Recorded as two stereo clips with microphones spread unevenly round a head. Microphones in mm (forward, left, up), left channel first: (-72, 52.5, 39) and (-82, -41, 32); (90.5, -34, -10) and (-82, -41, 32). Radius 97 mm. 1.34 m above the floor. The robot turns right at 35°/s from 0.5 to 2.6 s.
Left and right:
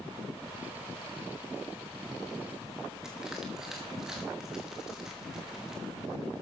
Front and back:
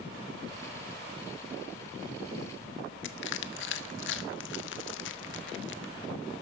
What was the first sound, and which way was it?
Crushing, 5° right.